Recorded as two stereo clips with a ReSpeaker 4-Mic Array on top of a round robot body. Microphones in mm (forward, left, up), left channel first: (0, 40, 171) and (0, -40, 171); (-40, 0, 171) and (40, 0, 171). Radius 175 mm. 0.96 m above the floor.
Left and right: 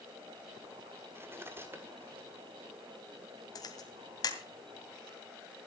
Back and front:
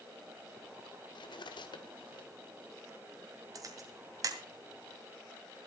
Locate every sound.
1.1 s cutlery clinking: 155° right, 1.5 m
3.5 s a camera shutter: 45° left, 2 m